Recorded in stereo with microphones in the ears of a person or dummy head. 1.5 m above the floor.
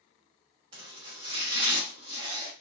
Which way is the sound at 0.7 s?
20° right (ahead or behind).